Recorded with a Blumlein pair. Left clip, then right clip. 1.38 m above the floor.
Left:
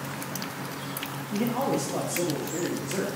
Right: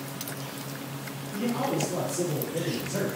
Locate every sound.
1.3 s a man speaking: 35° left, 0.7 m; by 3.1 s 80° left, 1.7 m